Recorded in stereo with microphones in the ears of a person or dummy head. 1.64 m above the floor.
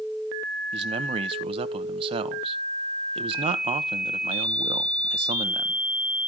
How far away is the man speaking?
About 0.8 m.